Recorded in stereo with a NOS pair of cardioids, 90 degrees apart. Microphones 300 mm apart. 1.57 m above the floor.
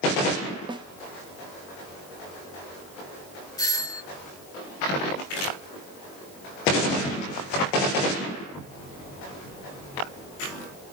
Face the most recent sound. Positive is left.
turn(degrees=10)